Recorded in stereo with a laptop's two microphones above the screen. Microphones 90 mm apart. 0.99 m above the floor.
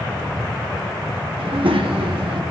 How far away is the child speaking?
About 0.9 m.